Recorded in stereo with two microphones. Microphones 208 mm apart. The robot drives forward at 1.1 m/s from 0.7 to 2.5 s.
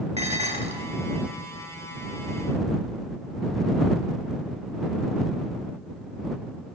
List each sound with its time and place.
0.2 s dishes clattering: 30° right (ahead or behind), 1.5 m